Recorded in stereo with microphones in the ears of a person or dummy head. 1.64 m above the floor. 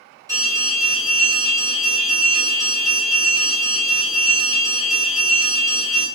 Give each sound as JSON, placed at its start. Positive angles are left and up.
{"t": 0.3, "sound": "an alarm", "side_deg": -20, "distance_m": 2.0}